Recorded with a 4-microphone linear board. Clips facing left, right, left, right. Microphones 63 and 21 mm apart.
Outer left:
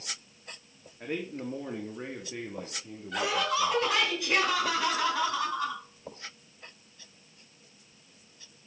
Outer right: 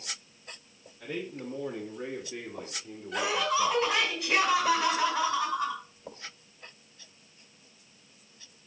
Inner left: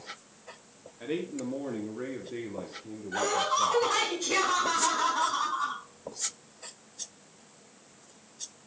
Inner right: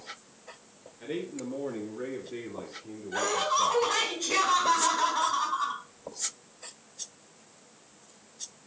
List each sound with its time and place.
1.0 s a man speaking: 35° left (ahead or behind), 1.8 m; by 3.8 s 15° right (ahead or behind), 1.4 m
3.1 s laughter: centre (ahead or behind), 3.5 m